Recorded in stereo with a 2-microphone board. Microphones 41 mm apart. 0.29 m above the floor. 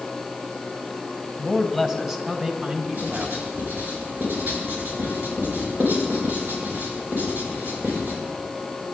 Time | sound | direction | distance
1.4 | a man speaking | 5° left (ahead or behind) | 1.3 m
2.9 | writing | 50° right (ahead or behind) | 5 m